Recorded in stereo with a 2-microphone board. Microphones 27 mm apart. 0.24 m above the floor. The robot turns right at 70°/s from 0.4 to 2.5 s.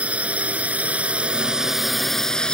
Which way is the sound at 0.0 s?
110° right.